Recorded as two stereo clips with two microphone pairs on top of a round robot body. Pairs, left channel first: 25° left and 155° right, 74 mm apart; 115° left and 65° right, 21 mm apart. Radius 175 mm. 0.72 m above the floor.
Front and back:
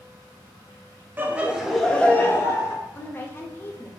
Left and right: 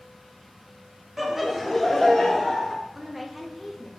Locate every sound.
1.2 s laughter: 130° right, 0.9 m; by 2.8 s 60° left, 1.1 m
3.0 s a woman speaking: 10° left, 0.9 m